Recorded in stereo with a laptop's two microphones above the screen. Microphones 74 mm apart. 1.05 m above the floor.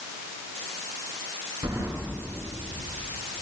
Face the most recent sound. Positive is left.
turn(degrees=-65)  # may be behind; listen again after turning